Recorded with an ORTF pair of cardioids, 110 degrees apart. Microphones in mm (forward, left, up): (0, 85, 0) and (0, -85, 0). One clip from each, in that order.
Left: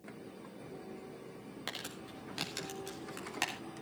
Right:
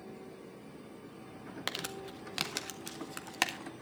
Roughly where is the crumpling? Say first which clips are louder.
Right 5 dB; ahead right.